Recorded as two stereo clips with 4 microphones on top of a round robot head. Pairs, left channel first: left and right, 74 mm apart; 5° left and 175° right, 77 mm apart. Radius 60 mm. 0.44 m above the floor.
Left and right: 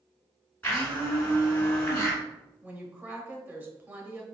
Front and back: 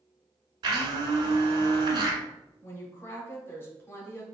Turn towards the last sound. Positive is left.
turn(degrees=-40)